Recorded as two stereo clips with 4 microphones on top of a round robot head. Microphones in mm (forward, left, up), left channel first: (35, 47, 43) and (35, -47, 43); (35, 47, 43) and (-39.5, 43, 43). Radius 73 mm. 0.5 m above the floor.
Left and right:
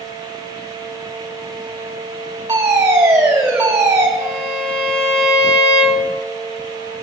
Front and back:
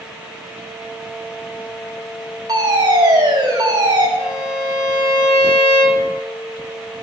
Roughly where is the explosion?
No explosion in this recording.